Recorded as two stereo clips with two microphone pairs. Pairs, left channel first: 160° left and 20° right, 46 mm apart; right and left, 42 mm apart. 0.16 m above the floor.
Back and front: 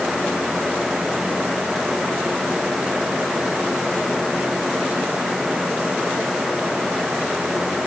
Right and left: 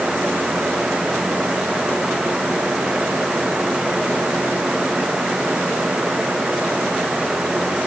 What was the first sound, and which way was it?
Only background noise.